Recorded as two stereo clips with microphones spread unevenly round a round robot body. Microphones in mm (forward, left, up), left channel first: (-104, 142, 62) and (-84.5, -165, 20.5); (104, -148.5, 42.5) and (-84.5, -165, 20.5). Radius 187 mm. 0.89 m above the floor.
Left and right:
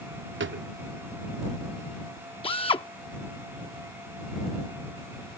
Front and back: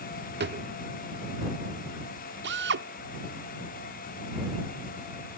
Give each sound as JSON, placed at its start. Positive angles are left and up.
{"t": 0.4, "sound": "a drawer", "azimuth_deg": -140}
{"t": 2.4, "sound": "a drill", "azimuth_deg": 170}